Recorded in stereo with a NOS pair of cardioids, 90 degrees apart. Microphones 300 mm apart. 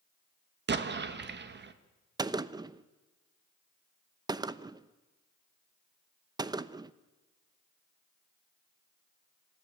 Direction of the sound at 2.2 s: 15° right.